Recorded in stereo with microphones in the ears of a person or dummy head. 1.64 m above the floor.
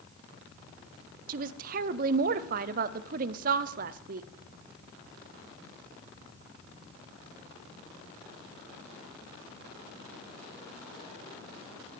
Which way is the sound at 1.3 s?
50° right (ahead or behind).